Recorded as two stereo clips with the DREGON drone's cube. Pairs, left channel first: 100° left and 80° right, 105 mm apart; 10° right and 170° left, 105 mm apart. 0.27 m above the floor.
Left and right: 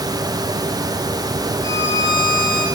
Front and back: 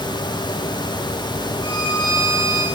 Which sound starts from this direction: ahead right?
A violin, at 1.6 s.